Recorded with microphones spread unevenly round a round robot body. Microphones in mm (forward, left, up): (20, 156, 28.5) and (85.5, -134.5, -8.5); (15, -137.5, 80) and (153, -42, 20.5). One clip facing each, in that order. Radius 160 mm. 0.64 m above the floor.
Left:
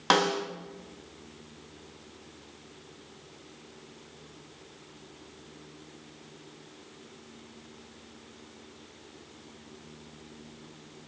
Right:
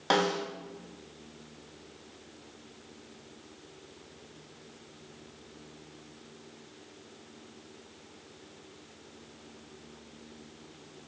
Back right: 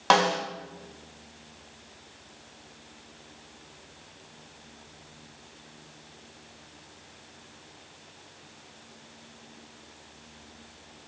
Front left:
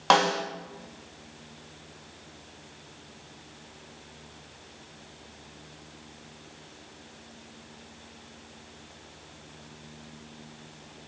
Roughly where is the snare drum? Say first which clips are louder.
Left 1 dB, even; ahead left.